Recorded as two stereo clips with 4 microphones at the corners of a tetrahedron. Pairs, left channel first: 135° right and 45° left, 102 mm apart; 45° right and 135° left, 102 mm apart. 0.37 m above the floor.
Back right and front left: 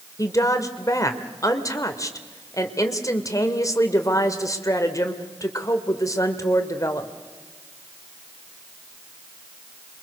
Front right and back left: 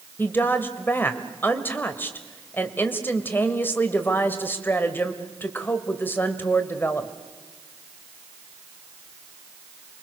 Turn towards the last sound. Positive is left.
turn(degrees=-105)